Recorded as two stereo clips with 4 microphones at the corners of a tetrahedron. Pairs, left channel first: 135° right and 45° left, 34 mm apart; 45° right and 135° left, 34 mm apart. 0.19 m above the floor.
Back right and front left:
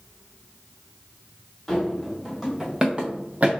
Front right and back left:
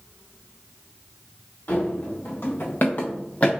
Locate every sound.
1.7 s running footsteps: 60° right, 2.5 m; by 3.5 s 5° left, 1.3 m